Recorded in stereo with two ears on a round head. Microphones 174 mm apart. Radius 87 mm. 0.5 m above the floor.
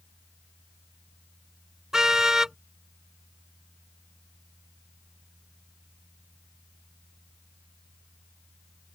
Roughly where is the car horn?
Centre.